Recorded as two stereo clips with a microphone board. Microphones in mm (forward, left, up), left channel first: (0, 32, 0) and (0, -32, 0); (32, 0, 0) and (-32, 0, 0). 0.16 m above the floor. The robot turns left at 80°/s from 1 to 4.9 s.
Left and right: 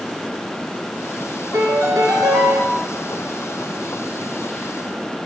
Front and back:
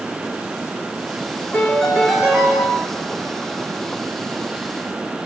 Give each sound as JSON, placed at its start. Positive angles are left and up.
{"t": 1.5, "sound": "a piano", "azimuth_deg": -55, "distance_m": 0.5}